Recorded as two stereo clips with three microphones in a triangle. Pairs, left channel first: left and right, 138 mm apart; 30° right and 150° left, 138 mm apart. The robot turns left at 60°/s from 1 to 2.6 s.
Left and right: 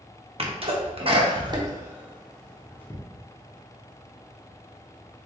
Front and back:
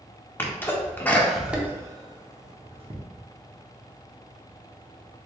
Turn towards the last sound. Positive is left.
turn(degrees=165)